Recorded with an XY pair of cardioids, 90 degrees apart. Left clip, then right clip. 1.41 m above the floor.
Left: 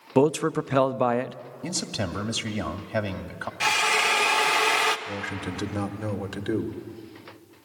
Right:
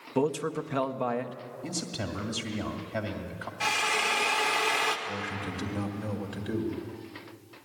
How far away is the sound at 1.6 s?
About 1.9 m.